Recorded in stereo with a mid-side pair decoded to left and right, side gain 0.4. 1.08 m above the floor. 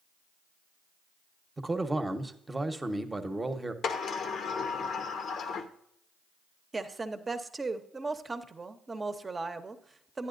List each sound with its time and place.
1.6 s a man speaking: 20° right, 1.0 m
3.8 s a sliding door: 65° left, 0.8 m
6.7 s a woman speaking: 30° right, 0.9 m